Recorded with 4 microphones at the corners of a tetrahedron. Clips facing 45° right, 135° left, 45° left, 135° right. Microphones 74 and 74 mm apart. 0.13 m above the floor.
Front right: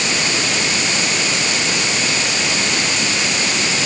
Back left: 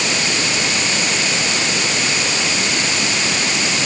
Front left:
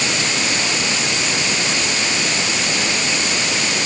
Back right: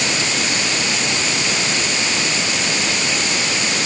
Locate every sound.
Only background noise.